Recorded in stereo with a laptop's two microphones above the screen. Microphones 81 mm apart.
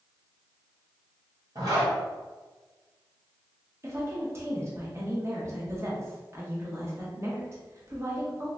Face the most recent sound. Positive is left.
turn(degrees=-35)  # may be behind; listen again after turning